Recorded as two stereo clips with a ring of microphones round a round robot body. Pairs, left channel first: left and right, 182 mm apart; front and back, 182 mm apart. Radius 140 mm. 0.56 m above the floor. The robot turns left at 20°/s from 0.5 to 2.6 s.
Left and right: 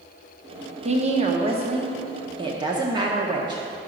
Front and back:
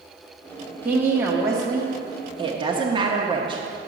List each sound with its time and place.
0.8 s a woman speaking: 105° right, 0.9 m; by 3.9 s 140° right, 0.9 m